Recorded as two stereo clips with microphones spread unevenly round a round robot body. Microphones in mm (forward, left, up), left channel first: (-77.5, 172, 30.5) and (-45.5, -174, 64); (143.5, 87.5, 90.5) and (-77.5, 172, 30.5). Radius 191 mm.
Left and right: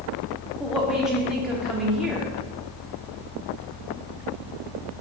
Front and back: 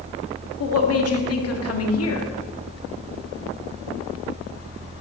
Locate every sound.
0.6 s a woman speaking: 5° left, 1.6 m